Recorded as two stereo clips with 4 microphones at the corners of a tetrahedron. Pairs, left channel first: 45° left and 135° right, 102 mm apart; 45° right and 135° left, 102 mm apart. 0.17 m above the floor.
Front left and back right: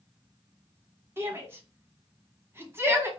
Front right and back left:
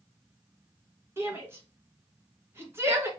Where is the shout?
Straight behind, 1.2 m.